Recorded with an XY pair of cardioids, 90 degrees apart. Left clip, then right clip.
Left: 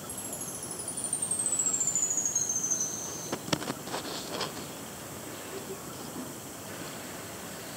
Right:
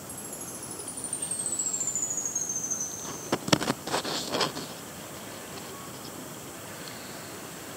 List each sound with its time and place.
0.1 s a chime: 15° left, 0.7 m